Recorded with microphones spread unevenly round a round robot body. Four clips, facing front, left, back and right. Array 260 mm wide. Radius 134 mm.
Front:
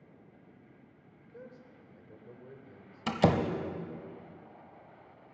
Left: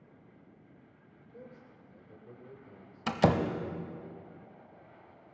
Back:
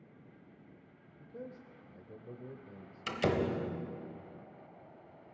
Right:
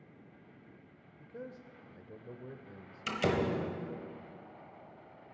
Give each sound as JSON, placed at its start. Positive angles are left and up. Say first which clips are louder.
{"t": 1.2, "sound": "a man speaking", "louder": "right 5 dB, back 3 dB", "azimuth_deg": -135, "distance_m": 1.0}
{"t": 3.1, "sound": "a door slam", "louder": "left 4 dB, front 5 dB", "azimuth_deg": 40, "distance_m": 1.2}